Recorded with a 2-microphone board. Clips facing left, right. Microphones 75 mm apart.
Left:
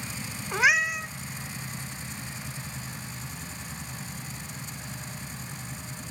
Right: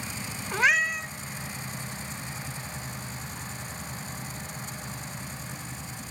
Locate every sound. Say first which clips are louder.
0.5 s a cat meowing: left 1 dB; 5° left (ahead or behind), 0.8 m